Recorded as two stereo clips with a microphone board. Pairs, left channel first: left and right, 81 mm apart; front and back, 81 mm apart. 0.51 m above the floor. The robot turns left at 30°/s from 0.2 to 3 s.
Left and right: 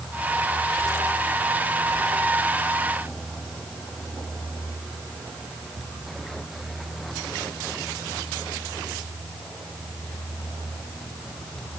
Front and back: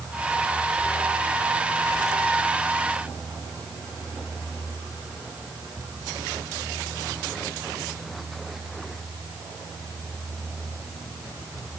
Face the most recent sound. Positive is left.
No sound to turn to.